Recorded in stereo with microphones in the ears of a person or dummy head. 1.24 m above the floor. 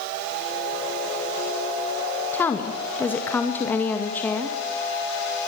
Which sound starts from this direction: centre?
A woman speaking, at 2.3 s.